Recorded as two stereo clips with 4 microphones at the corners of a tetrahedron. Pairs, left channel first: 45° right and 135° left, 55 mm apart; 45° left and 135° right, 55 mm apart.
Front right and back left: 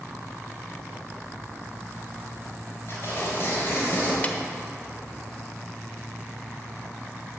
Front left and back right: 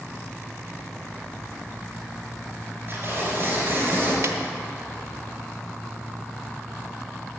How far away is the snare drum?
About 0.9 m.